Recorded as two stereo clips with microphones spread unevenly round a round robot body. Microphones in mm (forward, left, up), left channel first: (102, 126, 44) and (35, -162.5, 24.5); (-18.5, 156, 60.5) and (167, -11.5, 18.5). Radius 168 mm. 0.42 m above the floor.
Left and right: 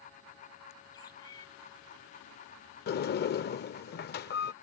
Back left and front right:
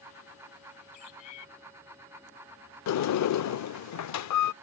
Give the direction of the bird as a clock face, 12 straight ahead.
7 o'clock.